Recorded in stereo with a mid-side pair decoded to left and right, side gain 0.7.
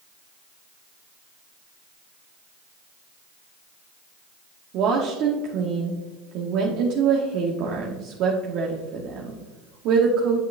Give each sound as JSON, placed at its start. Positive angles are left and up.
{"t": 4.7, "sound": "a woman speaking", "azimuth_deg": -60, "distance_m": 1.1}